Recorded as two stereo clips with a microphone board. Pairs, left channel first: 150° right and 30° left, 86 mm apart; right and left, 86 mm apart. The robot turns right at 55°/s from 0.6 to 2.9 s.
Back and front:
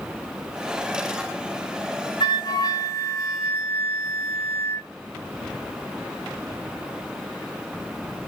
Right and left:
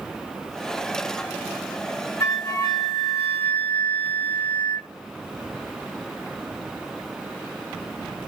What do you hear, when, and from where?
2.2 s a flute: 145° right, 0.9 m; by 4.9 s 105° right, 0.9 m